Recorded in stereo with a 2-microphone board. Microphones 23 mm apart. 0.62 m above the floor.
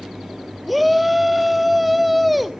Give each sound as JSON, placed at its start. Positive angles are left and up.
{"t": 0.7, "sound": "a shout", "side_deg": 0, "distance_m": 0.9}